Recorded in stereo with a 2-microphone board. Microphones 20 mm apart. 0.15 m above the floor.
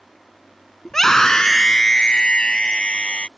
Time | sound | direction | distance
0.8 | a scream | 20° left (ahead or behind) | ?